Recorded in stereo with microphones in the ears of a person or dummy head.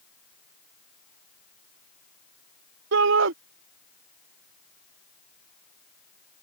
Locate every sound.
2.9 s a shout: 60° right (ahead or behind)